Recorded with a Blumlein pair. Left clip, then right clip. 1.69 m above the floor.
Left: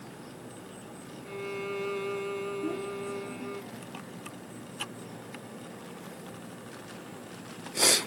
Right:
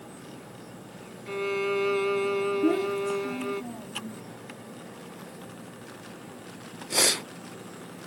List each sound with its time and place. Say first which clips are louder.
1.3 s a violin: right 8 dB; 70° right
2.6 s a child speaking: right 9 dB; 60° right